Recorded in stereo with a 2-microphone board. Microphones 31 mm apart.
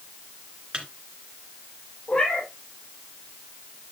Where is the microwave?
40° right (ahead or behind), 2.5 m.